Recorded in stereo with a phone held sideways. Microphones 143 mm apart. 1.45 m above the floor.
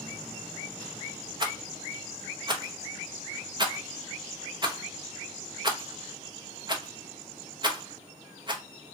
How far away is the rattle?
About 0.7 m.